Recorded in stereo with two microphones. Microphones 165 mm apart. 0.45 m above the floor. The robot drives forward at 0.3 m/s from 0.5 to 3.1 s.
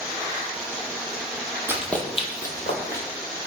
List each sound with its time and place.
1.7 s running footsteps: 15° right (ahead or behind), 0.6 m; by 3.0 s 65° left (ahead or behind), 1.3 m